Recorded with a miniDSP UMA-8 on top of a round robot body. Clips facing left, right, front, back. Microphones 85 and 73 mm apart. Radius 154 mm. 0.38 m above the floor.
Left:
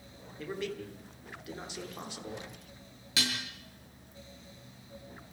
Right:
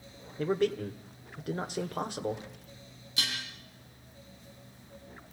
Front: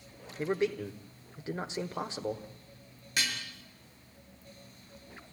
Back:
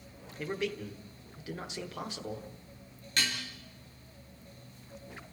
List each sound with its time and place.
0.4 s a man speaking: 55° right, 1.7 m
3.2 s dishes clattering: 85° left, 6.5 m